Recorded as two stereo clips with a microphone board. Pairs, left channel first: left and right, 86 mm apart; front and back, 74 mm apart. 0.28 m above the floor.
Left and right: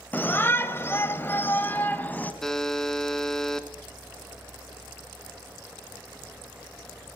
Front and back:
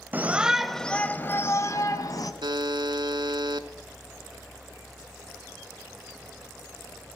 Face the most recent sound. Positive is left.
turn(degrees=175)